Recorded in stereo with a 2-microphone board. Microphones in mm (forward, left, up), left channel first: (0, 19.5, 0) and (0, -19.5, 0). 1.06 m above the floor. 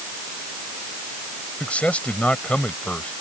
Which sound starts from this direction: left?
A man speaking, at 1.6 s.